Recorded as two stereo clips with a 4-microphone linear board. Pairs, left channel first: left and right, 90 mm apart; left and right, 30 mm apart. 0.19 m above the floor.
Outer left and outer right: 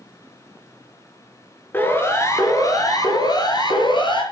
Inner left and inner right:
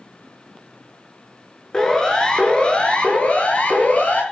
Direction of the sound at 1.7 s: 25° left (ahead or behind).